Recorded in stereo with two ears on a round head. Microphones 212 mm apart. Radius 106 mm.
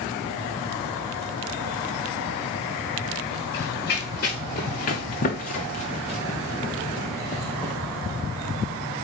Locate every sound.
3.5 s running footsteps: 45° left (ahead or behind), 4 m; by 7.8 s 5° left (ahead or behind), 2.0 m